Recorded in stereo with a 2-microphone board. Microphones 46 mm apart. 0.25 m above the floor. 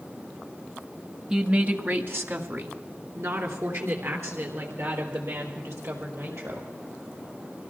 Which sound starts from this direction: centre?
A woman speaking, at 1.3 s.